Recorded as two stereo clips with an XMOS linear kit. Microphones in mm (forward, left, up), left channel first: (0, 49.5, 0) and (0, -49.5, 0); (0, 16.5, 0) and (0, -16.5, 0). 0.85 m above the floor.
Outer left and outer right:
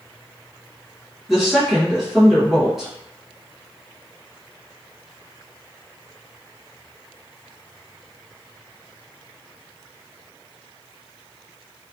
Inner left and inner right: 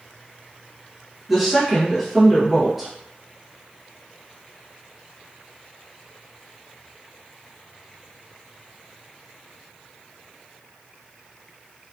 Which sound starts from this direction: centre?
A woman speaking, at 1.3 s.